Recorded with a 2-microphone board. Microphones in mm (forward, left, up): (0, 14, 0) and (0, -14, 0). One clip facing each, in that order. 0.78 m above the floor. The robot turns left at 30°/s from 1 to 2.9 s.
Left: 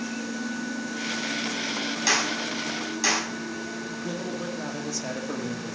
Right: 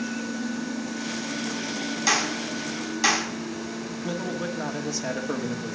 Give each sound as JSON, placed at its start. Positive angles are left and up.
{"t": 2.1, "sound": "a clap", "side_deg": 5, "distance_m": 5.0}
{"t": 4.0, "sound": "a man speaking", "side_deg": -15, "distance_m": 2.0}